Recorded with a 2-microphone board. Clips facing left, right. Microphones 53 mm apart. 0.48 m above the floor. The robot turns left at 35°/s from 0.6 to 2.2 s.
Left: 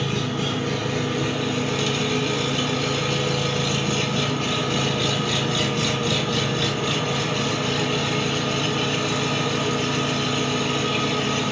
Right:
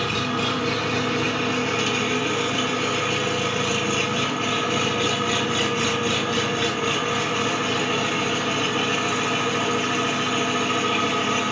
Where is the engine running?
95° right, 1.0 m; by 11.5 s 150° right, 1.0 m.